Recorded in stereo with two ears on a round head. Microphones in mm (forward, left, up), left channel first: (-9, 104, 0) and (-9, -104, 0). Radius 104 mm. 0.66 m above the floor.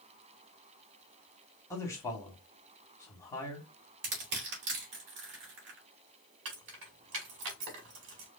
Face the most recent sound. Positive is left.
turn(degrees=-60)  # may be behind; listen again after turning